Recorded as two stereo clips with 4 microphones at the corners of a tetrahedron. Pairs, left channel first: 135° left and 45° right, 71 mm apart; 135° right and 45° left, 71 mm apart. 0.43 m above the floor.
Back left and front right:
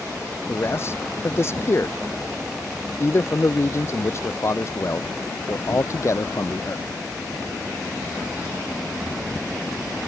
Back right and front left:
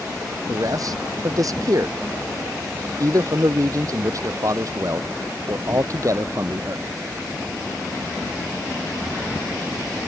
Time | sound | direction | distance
0.5 | a man speaking | 80° left | ?